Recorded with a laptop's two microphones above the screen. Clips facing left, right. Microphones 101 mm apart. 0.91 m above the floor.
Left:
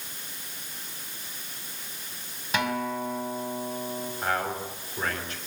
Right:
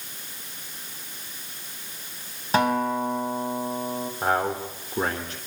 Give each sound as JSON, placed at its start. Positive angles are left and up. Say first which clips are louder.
{"t": 2.5, "sound": "a guitar", "louder": "right 6 dB", "side_deg": -35, "distance_m": 4.5}
{"t": 4.2, "sound": "a man speaking", "louder": "right 5 dB", "side_deg": -40, "distance_m": 3.0}